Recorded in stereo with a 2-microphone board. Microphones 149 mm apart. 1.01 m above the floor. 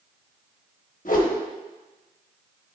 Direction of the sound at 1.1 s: 65° left (ahead or behind).